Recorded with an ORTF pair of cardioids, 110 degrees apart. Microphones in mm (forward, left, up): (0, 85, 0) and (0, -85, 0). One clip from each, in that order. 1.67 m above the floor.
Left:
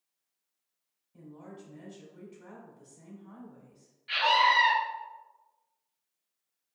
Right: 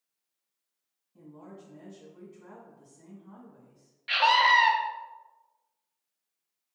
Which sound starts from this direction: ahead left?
A woman speaking, at 1.1 s.